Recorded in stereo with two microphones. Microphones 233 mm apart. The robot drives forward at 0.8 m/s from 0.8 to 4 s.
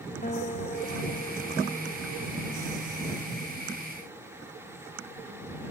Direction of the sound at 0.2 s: 35° left (ahead or behind).